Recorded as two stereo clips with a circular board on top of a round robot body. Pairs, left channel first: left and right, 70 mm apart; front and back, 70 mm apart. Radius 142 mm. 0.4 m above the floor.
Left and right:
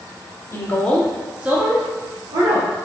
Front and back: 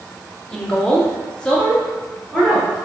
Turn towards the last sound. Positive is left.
turn(degrees=-85)